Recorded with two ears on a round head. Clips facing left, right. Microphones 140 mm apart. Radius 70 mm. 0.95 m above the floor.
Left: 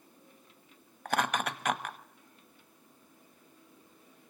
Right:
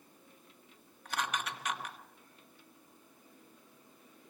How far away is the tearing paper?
I don't hear tearing paper.